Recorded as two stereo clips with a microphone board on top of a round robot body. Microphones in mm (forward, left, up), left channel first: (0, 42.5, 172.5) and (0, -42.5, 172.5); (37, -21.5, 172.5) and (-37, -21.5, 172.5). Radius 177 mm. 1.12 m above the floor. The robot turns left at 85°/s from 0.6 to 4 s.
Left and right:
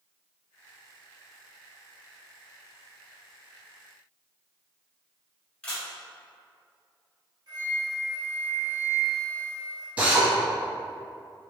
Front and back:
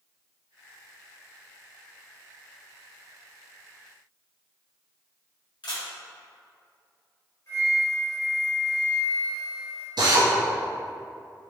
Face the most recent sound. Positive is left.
turn(degrees=-165)